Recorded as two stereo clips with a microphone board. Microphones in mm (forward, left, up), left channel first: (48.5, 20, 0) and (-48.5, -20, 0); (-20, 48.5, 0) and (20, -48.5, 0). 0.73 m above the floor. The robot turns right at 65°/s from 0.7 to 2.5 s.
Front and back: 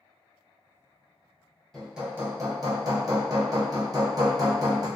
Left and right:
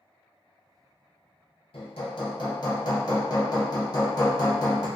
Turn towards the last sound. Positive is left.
turn(degrees=155)